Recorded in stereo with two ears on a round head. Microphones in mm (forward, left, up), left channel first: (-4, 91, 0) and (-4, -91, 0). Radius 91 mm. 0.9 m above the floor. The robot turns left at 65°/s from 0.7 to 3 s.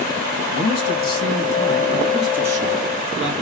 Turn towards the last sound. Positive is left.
turn(degrees=-55)